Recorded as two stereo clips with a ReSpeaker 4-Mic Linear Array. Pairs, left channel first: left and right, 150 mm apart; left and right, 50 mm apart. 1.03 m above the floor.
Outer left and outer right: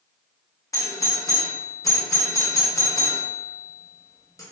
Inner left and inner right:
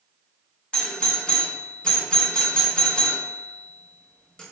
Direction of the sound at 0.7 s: 20° left (ahead or behind).